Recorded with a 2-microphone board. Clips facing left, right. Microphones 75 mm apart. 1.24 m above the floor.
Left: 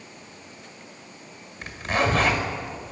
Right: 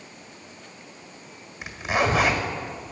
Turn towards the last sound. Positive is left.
turn(degrees=-10)  # may be behind; listen again after turning